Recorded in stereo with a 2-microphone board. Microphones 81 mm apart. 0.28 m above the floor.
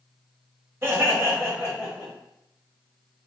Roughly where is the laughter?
Right.